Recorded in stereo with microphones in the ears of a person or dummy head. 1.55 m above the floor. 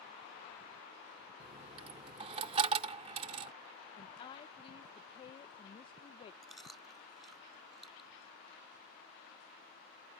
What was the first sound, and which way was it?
A dropped coin, 35° right (ahead or behind).